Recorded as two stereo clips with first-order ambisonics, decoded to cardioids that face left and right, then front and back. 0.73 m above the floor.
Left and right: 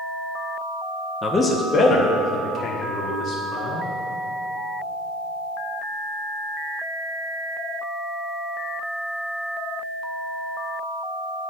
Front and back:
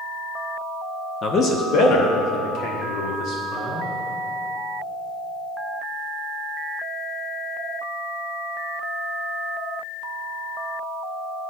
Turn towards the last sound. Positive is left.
turn(degrees=35)